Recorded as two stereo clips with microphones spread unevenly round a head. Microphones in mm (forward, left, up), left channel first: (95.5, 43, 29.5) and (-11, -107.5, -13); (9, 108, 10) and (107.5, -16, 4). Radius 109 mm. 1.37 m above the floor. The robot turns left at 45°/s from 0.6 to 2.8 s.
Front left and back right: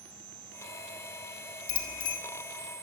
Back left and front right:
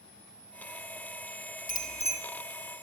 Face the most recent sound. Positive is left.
turn(degrees=45)